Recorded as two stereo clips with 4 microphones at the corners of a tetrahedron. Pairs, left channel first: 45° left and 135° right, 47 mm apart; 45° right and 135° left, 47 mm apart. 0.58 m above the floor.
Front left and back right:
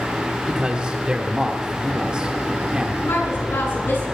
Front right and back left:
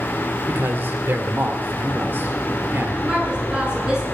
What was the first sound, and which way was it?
A man speaking, 160° left.